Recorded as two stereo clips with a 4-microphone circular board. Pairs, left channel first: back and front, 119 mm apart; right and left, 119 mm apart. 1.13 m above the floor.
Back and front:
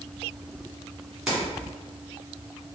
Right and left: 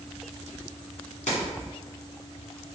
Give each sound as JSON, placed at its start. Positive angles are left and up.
{"t": 1.3, "sound": "keys jangling", "azimuth_deg": -85, "distance_m": 2.0}